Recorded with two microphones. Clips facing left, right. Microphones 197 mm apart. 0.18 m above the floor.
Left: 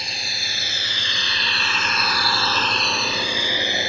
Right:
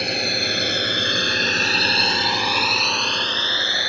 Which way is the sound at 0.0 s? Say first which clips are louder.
Right 13 dB; 65° right (ahead or behind).